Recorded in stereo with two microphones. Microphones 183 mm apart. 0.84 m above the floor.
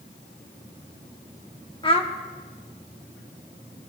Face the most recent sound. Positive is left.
turn(degrees=30)  # may be behind; listen again after turning